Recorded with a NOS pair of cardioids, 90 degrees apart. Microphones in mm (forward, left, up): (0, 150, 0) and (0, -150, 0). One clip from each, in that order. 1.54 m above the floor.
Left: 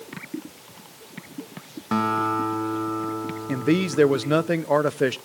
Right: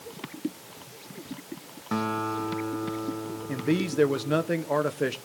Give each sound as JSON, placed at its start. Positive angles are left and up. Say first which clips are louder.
{"t": 1.9, "sound": "a guitar", "louder": "left 6 dB", "azimuth_deg": 30, "distance_m": 1.8}
{"t": 3.5, "sound": "a man speaking", "louder": "left 5 dB", "azimuth_deg": 25, "distance_m": 0.8}